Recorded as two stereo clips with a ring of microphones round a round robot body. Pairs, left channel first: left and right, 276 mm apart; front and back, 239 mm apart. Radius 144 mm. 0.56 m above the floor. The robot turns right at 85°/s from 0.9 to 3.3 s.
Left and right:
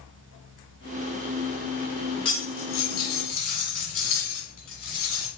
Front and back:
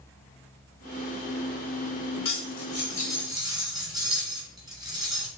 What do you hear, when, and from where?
2.2 s cutlery clinking: 15° left, 1.8 m; by 5.3 s 105° left, 1.8 m